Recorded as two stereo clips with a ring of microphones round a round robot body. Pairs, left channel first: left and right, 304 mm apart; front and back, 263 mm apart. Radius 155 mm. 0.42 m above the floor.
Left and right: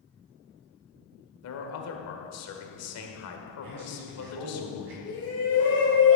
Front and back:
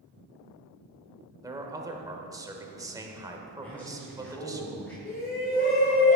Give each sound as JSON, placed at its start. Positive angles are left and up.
{"t": 1.4, "sound": "a man speaking", "azimuth_deg": 105, "distance_m": 1.5}
{"t": 3.6, "sound": "a man speaking", "azimuth_deg": -85, "distance_m": 3.5}
{"t": 5.0, "sound": "a shout", "azimuth_deg": 45, "distance_m": 2.0}